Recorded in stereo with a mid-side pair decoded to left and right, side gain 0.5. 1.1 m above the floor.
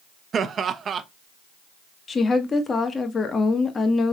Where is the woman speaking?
35° left, 1.1 m.